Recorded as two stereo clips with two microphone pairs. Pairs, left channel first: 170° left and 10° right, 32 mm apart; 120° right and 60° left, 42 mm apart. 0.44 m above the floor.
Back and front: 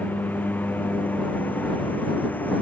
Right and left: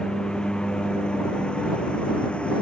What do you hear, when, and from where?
0.0 s a lawn mower: 170° left; by 2.6 s straight behind